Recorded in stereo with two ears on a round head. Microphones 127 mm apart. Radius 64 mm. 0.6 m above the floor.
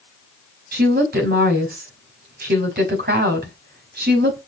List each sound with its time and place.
0.7 s a woman speaking: 75° right (ahead or behind), 5 m